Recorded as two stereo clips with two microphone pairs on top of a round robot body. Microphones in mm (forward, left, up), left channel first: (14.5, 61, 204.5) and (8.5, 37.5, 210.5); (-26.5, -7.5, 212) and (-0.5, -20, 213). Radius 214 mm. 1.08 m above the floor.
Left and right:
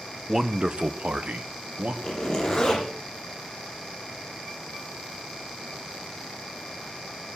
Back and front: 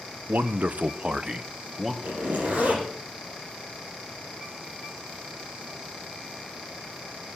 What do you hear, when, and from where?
0.3 s a man speaking: 20° right, 0.9 m; by 1.9 s 105° right, 1.5 m
2.0 s a zipper: 5° left, 7 m